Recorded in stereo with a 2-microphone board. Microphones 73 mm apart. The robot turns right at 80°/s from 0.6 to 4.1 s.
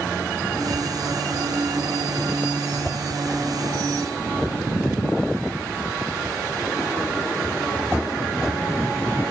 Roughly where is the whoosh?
Centre.